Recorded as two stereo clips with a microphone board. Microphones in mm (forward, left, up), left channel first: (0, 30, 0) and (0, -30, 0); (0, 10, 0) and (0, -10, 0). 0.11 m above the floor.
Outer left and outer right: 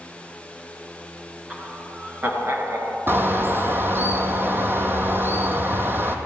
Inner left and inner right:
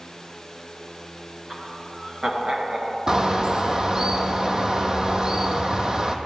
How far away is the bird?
About 0.9 m.